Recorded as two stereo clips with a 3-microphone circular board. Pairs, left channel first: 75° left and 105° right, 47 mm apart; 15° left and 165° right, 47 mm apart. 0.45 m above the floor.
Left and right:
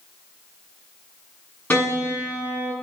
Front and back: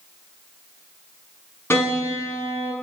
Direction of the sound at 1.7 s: 40° left.